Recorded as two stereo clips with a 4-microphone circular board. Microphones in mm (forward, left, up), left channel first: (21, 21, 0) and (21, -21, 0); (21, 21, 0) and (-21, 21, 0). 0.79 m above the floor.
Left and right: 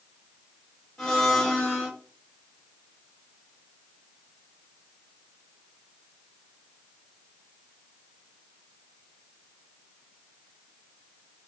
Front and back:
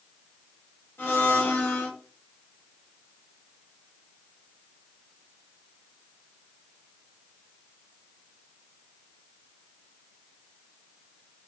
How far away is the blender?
About 1.3 m.